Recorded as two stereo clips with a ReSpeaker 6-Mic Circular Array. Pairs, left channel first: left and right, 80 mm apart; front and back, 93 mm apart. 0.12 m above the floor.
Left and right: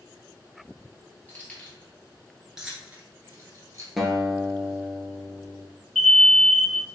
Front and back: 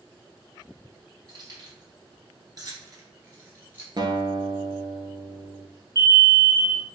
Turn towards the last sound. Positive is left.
turn(degrees=5)